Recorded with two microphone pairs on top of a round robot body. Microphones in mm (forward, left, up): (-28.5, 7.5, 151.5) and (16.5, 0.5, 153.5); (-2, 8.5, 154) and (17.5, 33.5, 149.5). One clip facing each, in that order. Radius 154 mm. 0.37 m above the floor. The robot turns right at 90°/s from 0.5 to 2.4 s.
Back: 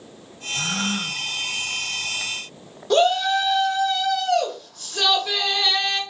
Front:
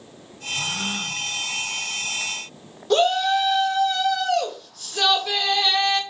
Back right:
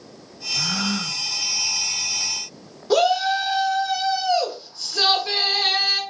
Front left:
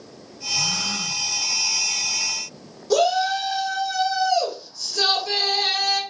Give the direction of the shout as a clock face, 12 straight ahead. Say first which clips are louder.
Back 1 dB, back right 1 dB; 3 o'clock.